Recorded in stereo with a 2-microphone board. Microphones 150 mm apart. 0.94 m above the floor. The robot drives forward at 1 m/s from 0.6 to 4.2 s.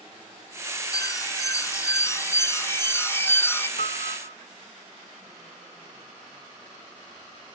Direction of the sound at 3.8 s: 70° left (ahead or behind).